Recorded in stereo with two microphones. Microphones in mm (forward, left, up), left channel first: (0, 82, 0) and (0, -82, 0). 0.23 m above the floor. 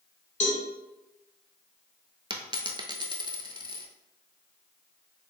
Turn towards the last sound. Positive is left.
turn(degrees=-30)  # may be behind; listen again after turning